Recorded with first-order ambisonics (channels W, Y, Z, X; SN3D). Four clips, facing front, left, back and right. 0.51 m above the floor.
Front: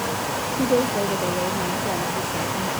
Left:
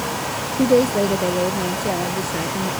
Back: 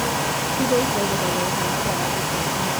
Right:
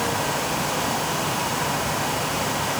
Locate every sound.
0.6 s a woman speaking: 90° left